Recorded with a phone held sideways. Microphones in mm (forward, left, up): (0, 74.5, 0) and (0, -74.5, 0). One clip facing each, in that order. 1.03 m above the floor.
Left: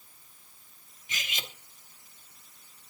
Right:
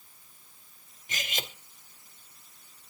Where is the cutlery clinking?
45° right (ahead or behind), 0.8 m.